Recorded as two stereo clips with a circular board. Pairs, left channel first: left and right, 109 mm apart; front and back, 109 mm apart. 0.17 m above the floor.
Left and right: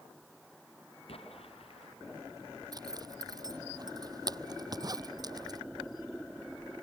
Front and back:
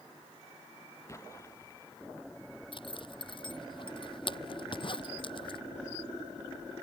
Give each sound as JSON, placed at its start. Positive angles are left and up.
{"t": 1.1, "sound": "an explosion", "azimuth_deg": 65}
{"t": 2.7, "sound": "a zipper", "azimuth_deg": -40}